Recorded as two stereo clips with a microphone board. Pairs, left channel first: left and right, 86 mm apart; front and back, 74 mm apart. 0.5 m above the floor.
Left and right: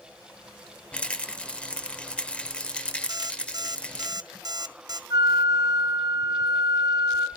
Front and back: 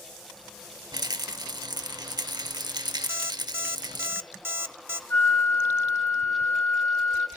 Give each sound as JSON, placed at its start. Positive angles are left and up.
{"t": 0.9, "sound": "a rattle", "azimuth_deg": 165, "distance_m": 0.8}
{"t": 3.1, "sound": "an alarm clock", "azimuth_deg": -125, "distance_m": 0.7}
{"t": 5.1, "sound": "a flute", "azimuth_deg": -50, "distance_m": 3.5}